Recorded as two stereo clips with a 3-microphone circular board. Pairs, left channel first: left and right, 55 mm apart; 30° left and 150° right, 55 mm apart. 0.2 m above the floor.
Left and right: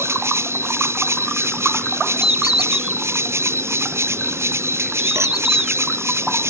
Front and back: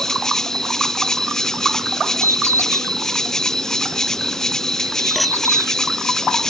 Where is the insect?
50° right.